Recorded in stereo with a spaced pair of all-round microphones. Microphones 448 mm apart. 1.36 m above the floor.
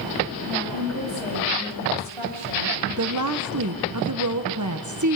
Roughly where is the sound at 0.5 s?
Right.